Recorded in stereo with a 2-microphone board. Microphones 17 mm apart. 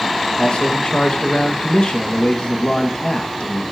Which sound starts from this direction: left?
A man speaking, at 0.4 s.